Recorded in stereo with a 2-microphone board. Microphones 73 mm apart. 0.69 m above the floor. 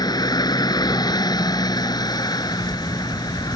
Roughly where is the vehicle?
Left.